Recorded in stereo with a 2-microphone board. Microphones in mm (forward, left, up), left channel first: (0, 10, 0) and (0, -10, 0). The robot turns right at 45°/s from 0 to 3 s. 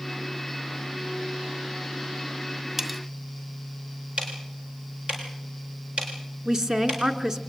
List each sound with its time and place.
2.8 s cutlery clinking: 25° right (ahead or behind), 2 m; by 3.0 s 15° right (ahead or behind), 2 m
4.2 s ticking: 80° right, 7.5 m
6.5 s a woman speaking: 35° right (ahead or behind), 1.6 m